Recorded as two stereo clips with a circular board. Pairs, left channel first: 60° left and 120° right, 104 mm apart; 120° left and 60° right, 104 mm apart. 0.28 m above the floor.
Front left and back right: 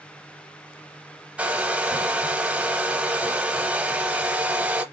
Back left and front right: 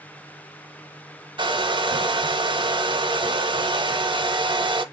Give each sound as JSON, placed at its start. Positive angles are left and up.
{"t": 1.4, "sound": "a hair dryer", "azimuth_deg": -45, "distance_m": 0.6}